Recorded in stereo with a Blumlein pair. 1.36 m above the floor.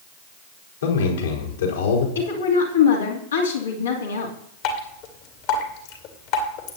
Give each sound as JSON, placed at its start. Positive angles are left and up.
{"t": 0.8, "sound": "a man speaking", "azimuth_deg": 65, "distance_m": 4.0}
{"t": 2.1, "sound": "a woman speaking", "azimuth_deg": 70, "distance_m": 2.5}
{"t": 4.6, "sound": "dripping", "azimuth_deg": 45, "distance_m": 2.5}